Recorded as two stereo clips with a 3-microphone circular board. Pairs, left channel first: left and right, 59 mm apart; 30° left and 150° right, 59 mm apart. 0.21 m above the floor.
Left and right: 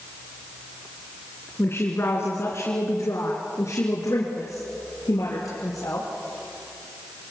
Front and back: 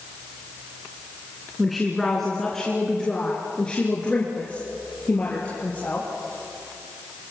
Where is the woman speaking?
120° left, 2.5 m; by 6.1 s 90° left, 5 m.